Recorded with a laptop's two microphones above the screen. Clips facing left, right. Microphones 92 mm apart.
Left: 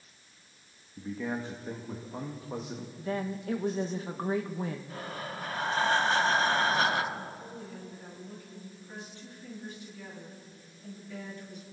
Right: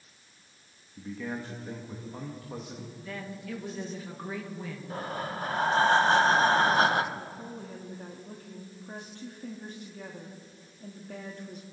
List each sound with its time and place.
1.0 s a man speaking: 15° left (ahead or behind), 0.9 m
3.0 s a woman speaking: 35° left (ahead or behind), 1.0 m
4.9 s breathing: 35° right (ahead or behind), 0.9 m
7.2 s a woman speaking: 55° right (ahead or behind), 2 m